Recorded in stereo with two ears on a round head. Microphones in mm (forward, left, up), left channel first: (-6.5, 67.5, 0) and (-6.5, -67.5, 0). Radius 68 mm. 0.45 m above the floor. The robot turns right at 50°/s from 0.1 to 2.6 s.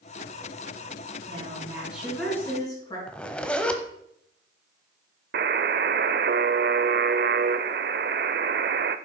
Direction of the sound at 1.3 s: 40° right.